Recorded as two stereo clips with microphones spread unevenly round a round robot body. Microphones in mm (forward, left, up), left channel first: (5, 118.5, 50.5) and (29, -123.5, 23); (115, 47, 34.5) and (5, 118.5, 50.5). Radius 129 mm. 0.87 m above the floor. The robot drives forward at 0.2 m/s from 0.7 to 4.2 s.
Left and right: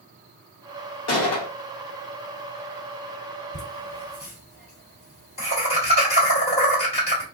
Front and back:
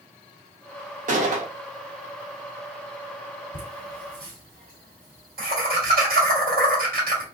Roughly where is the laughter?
Behind left.